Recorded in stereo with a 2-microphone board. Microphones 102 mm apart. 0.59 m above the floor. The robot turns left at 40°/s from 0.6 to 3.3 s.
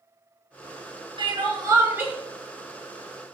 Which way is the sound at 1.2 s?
125° right.